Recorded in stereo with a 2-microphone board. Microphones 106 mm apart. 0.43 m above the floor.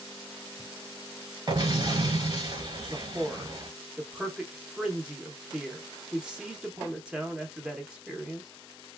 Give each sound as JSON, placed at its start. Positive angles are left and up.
{"t": 1.5, "sound": "an explosion", "side_deg": -45, "distance_m": 1.3}
{"t": 2.9, "sound": "a man speaking", "side_deg": -10, "distance_m": 0.7}